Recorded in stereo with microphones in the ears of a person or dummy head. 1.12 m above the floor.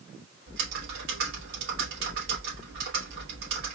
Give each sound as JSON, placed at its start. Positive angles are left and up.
{"t": 0.5, "sound": "typing on a keyboard", "side_deg": -65, "distance_m": 3.0}